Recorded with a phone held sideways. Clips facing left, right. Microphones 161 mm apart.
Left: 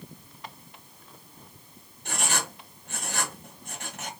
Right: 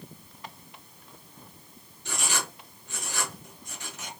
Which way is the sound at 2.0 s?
55° left (ahead or behind).